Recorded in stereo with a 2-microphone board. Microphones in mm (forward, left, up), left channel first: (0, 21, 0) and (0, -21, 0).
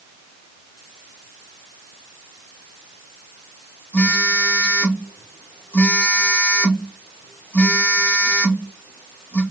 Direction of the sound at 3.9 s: 50° left (ahead or behind).